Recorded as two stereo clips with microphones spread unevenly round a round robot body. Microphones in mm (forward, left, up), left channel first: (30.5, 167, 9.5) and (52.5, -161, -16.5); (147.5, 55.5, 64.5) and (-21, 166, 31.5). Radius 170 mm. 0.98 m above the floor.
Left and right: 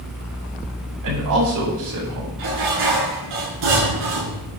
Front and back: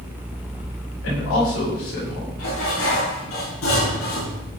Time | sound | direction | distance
1.0 | a man speaking | 55° right | 8 m
2.4 | dishes clattering | 75° right | 8 m